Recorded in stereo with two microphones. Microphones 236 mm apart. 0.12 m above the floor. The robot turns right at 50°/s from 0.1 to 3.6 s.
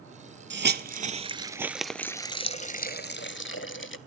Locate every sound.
0.5 s a hiss: 50° right (ahead or behind), 0.5 m; by 4.0 s 55° left (ahead or behind), 0.5 m